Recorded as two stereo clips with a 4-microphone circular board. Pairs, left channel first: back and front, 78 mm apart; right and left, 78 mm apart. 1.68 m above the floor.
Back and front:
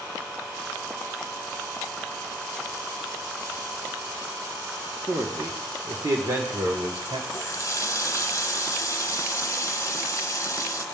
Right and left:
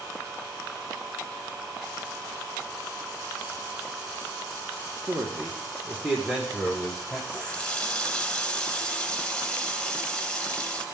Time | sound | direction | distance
5.1 | a man speaking | 35° left | 1.5 m
7.3 | a running tap | 160° right | 1.0 m